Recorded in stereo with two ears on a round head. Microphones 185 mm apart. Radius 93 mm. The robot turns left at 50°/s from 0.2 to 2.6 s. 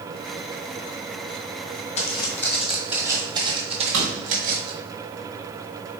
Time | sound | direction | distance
2.0 | footsteps | 35° left (ahead or behind) | 1.2 m
3.9 | a drawer | 70° right (ahead or behind) | 1.4 m